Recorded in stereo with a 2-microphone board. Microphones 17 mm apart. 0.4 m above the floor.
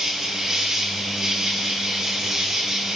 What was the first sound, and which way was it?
An insect, 45° right (ahead or behind).